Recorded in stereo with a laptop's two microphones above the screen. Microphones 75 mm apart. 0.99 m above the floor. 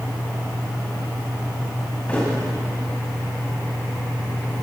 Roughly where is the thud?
Centre.